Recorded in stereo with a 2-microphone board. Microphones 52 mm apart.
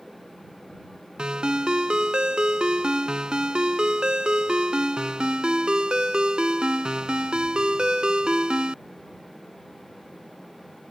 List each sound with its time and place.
1.2 s a ringtone: 20° right (ahead or behind)